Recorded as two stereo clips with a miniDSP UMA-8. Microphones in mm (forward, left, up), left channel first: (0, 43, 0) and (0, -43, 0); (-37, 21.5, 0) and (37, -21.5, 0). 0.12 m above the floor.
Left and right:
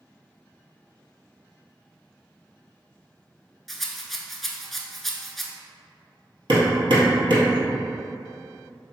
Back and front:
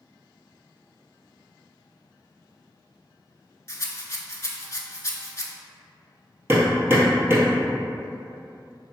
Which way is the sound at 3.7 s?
Straight behind.